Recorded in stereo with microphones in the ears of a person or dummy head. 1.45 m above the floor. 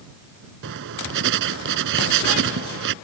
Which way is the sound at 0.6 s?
60° right (ahead or behind).